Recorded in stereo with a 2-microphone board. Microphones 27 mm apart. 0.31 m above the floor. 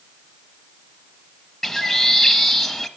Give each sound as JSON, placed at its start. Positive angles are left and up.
{"t": 1.6, "sound": "a bird", "side_deg": 15, "distance_m": 0.7}